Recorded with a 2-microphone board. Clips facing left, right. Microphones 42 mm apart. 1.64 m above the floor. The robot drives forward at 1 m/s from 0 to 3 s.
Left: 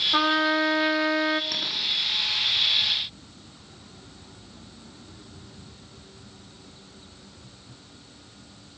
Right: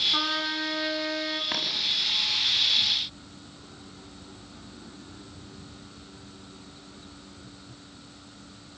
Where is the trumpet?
30° left (ahead or behind), 1.7 m; by 1.4 s 35° left (ahead or behind), 1.4 m.